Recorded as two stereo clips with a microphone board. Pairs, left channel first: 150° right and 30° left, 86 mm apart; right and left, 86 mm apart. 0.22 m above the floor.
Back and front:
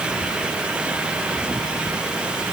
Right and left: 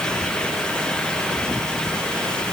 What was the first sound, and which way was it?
Only background noise.